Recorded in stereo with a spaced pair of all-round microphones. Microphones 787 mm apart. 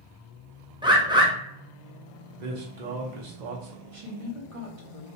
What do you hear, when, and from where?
0.8 s a bird: 5° right (ahead or behind), 0.6 m
2.4 s a man speaking: 60° right (ahead or behind), 1.0 m
3.9 s a woman speaking: 45° right (ahead or behind), 1.2 m